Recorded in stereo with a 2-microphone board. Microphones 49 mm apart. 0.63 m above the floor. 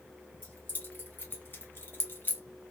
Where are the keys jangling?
35° left (ahead or behind), 1.5 m; by 2.4 s 40° left (ahead or behind), 0.8 m.